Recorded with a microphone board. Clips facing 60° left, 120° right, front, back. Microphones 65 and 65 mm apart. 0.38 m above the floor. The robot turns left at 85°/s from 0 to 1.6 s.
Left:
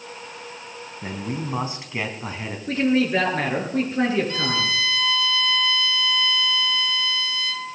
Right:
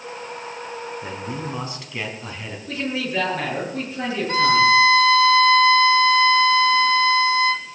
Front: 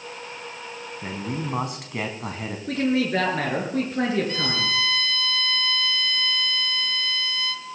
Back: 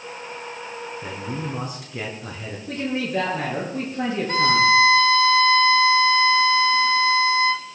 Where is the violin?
145° right, 1.0 m.